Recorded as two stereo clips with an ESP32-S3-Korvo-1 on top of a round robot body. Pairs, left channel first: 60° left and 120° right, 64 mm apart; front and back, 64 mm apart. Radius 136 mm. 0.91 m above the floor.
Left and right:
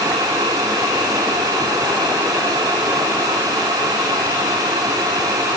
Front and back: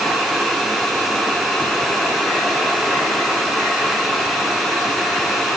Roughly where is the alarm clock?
No alarm clock in this recording.